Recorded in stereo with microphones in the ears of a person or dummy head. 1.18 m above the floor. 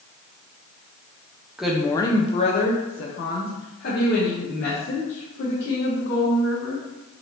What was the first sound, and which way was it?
A woman speaking, 10° right (ahead or behind).